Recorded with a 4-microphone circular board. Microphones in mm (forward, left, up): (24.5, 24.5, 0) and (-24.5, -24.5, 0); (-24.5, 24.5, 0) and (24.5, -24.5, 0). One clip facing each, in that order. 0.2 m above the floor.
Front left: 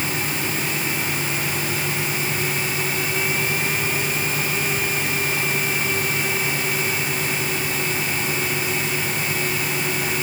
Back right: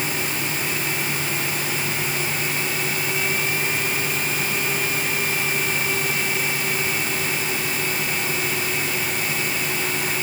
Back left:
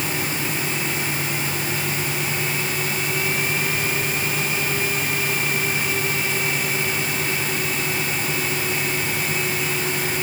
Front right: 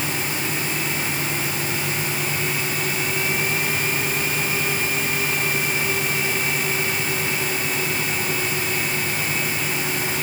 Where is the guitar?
No guitar in this recording.